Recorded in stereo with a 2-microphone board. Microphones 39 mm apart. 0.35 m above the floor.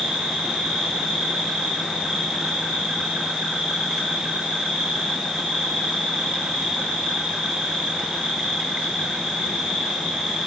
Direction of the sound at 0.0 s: 5° right (ahead or behind).